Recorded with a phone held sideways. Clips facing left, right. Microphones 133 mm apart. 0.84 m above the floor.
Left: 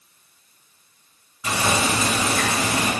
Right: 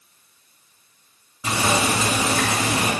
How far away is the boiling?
About 3 m.